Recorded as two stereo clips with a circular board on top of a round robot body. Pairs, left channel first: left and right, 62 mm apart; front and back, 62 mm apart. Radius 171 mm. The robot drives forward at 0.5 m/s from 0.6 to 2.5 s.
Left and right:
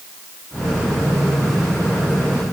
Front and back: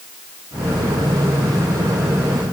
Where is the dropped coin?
No dropped coin in this recording.